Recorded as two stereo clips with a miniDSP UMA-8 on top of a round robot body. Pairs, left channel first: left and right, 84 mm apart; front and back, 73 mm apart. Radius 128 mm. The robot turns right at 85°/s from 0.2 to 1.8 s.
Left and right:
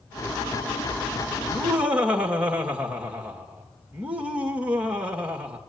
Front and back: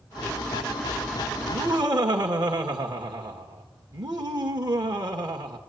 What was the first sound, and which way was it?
Laughter, 160° left.